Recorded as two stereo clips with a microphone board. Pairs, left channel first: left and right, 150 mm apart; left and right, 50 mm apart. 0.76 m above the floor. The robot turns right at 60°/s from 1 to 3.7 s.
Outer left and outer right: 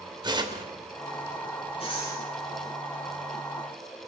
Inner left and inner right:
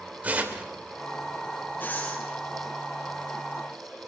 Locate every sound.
0.2 s tearing paper: 30° right (ahead or behind), 3 m
1.8 s breathing: 35° left (ahead or behind), 9 m; by 2.2 s 10° left (ahead or behind), 9 m